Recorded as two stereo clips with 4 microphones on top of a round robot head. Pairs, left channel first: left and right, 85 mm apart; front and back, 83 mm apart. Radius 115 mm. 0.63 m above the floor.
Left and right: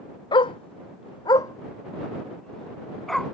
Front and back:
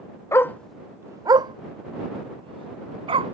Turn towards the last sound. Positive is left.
turn(degrees=180)